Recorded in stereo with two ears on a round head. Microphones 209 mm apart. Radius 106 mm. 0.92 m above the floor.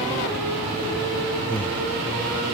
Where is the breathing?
10° left (ahead or behind), 1.4 m.